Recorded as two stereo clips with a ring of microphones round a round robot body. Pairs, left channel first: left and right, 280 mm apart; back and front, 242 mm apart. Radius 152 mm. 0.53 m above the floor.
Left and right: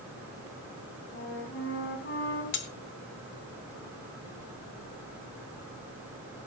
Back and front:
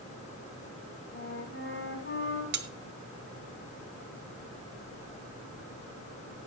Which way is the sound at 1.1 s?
140° left.